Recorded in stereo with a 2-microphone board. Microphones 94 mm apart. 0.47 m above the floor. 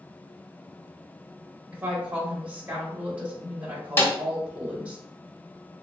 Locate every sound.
1.7 s a woman speaking: 15° right (ahead or behind), 1.0 m
4.0 s a snare drum: 20° left (ahead or behind), 0.6 m